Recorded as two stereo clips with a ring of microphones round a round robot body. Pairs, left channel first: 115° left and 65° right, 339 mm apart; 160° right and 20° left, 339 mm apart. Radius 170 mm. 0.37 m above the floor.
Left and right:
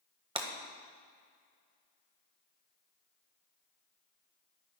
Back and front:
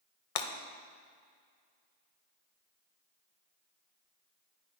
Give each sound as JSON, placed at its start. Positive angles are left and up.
{"t": 0.3, "sound": "breaking glass", "azimuth_deg": -140, "distance_m": 1.2}